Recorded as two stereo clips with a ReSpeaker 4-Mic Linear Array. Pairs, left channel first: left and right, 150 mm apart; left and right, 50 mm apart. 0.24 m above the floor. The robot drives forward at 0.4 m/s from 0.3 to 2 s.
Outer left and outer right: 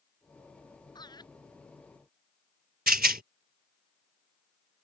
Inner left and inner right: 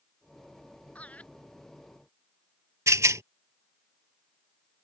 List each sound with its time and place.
0.9 s laughter: 25° left (ahead or behind)
2.9 s a rattle: 85° right